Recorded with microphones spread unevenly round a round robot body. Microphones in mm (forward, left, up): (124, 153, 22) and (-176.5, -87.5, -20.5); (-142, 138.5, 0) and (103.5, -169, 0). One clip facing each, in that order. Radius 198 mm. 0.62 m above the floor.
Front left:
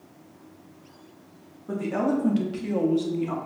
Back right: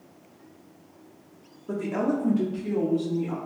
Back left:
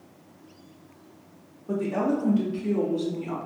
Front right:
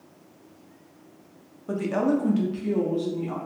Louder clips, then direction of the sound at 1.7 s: Front left 1 dB, front right 2 dB; 50° right.